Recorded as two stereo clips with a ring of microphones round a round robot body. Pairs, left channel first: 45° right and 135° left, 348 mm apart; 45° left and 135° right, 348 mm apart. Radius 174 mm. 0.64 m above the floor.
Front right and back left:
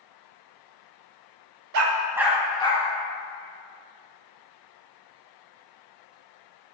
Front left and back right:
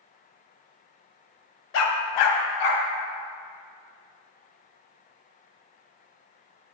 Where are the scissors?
I don't hear scissors.